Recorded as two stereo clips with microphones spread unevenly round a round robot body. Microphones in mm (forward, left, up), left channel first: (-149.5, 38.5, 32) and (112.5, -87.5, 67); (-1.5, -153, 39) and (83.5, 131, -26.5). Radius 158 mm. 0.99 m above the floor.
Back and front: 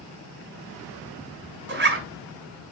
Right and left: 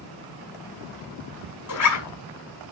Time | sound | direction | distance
1.7 | a zipper | 80° right | 5 m